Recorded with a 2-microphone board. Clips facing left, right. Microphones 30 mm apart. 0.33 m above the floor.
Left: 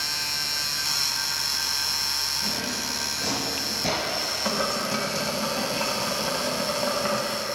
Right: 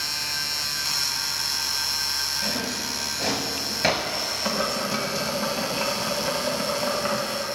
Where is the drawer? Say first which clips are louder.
Right 1 dB; 80° right, 3 m.